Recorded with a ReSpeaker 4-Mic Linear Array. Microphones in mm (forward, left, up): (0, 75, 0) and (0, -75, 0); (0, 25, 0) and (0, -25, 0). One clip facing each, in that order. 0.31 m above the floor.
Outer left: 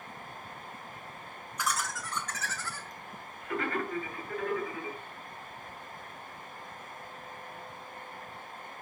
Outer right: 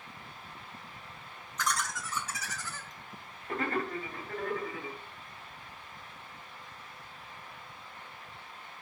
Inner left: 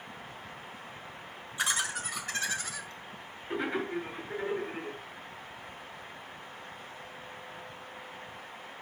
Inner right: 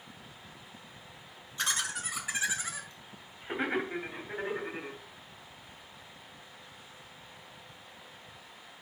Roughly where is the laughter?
Centre.